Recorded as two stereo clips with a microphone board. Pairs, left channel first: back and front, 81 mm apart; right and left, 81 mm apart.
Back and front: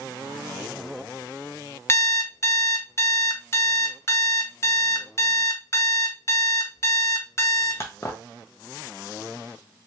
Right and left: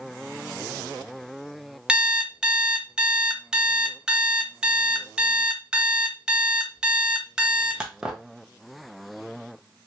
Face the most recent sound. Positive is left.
turn(degrees=160)